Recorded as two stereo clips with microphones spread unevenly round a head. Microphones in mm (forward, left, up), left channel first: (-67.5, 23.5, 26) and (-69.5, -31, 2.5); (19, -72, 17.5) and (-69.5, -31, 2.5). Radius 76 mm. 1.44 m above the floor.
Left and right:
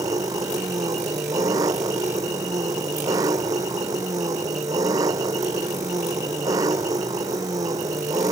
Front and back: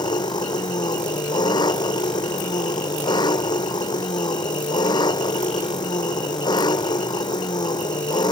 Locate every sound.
0.0 s an engine running: 70° right